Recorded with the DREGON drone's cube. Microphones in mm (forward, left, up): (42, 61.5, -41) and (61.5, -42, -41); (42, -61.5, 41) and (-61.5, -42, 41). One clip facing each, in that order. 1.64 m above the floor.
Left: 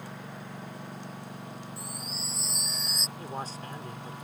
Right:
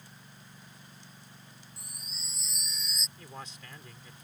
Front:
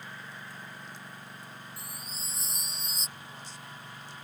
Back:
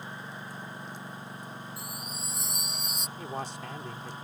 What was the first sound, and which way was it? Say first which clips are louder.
A lawn mower: left 13 dB, back 4 dB; 100° left.